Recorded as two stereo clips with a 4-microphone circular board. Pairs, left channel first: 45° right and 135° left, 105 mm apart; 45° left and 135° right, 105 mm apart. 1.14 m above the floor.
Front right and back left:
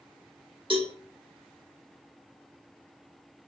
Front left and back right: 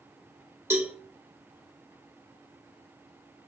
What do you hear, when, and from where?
0.7 s a cowbell: 160° left, 1.0 m